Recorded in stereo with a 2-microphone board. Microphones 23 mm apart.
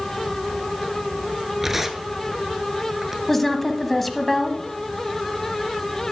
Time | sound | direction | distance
1.6 | tearing paper | 10° right (ahead or behind) | 0.9 m
3.3 | a woman speaking | 5° left (ahead or behind) | 1.0 m